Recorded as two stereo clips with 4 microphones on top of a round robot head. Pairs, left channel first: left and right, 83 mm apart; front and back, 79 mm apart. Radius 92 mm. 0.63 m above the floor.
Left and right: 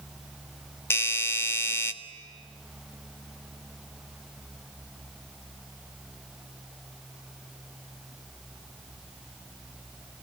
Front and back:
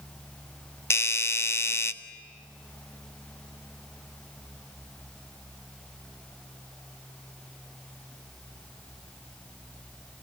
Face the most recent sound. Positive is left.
turn(degrees=40)